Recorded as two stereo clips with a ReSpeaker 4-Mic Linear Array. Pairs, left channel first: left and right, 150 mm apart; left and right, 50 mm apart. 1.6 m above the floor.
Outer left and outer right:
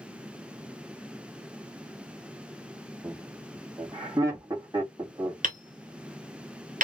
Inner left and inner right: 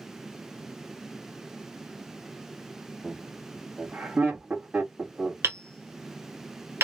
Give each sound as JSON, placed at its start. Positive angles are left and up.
{"t": 3.0, "sound": "laughter", "side_deg": -20, "distance_m": 1.9}
{"t": 5.4, "sound": "hammering", "side_deg": -60, "distance_m": 1.3}